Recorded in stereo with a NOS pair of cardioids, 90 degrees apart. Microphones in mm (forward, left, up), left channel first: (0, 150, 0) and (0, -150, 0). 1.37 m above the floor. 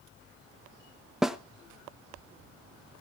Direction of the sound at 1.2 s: Straight ahead.